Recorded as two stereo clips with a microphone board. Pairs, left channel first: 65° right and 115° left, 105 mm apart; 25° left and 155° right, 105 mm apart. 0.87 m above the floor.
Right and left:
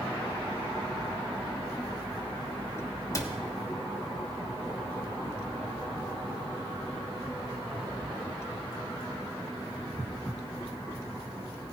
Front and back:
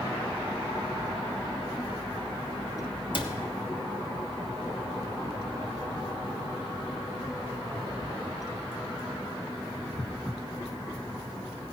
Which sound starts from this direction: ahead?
A cupboard door, at 3.1 s.